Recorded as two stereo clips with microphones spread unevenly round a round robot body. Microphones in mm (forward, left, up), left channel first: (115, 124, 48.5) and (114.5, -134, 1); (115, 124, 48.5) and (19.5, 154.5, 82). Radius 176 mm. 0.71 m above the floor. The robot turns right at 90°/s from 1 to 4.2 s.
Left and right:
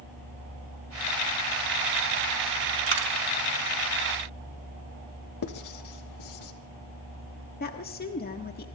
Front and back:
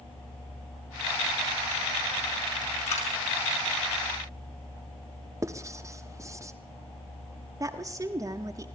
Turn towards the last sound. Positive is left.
turn(degrees=100)